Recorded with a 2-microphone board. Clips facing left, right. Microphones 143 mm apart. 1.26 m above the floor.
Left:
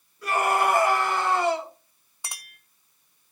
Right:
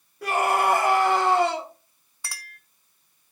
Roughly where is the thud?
I don't hear a thud.